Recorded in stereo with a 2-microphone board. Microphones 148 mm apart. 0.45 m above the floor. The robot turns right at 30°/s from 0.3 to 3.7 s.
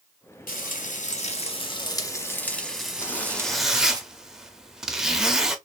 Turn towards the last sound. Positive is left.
turn(degrees=-5)  # may be behind; listen again after turning